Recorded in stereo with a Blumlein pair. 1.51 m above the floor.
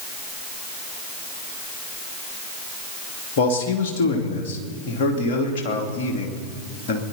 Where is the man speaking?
50° left, 2.5 m.